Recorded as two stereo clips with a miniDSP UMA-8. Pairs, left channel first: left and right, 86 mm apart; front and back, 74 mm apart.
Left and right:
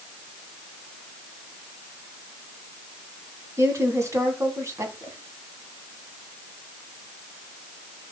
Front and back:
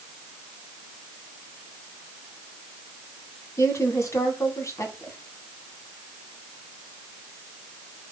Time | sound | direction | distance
3.6 | a woman speaking | 40° right | 2.5 m